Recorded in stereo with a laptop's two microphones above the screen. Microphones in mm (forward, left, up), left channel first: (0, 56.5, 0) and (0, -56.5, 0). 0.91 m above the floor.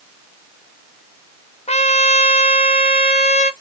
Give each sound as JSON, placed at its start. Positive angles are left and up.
{"t": 1.7, "sound": "a trumpet", "side_deg": 75, "distance_m": 0.6}